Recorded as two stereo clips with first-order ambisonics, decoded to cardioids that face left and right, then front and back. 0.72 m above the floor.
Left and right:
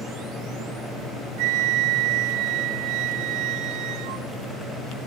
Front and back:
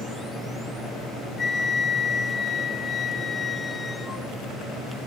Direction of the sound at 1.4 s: 70° right.